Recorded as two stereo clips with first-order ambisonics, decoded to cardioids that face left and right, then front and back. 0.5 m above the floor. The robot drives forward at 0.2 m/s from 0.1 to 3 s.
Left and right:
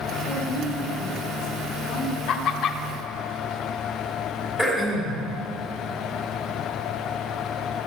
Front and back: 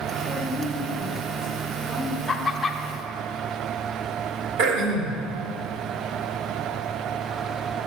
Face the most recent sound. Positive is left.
turn(degrees=180)